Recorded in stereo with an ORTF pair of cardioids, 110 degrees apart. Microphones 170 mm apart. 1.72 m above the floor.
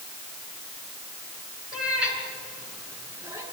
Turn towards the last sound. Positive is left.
turn(degrees=-15)